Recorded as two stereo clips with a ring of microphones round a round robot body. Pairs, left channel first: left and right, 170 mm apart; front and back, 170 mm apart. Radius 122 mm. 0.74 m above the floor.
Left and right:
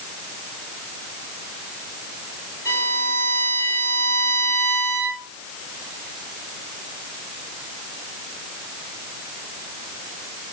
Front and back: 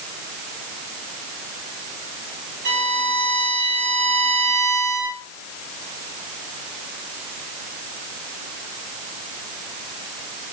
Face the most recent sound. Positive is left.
turn(degrees=-170)